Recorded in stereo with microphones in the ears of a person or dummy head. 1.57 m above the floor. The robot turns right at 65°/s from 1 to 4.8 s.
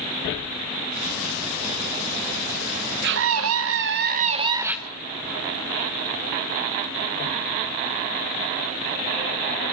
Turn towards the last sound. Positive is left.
turn(degrees=-10)